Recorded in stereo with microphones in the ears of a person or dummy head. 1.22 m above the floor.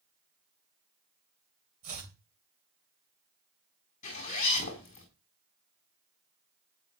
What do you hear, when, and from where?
1.8 s chopping: 45° right (ahead or behind), 3 m
4.0 s a zipper: 40° left (ahead or behind), 4 m